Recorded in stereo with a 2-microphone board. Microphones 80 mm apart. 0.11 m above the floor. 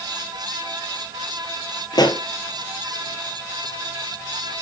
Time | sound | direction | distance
1.9 | a pop | 60° left (ahead or behind) | 1.0 m